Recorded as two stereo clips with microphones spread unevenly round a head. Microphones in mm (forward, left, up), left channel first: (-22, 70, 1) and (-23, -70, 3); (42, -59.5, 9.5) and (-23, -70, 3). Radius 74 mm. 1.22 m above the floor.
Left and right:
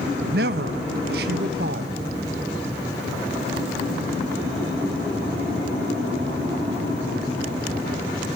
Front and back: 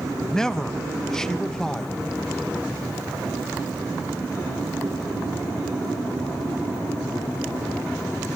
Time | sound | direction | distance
0.2 | a man speaking | 75° right | 1.7 m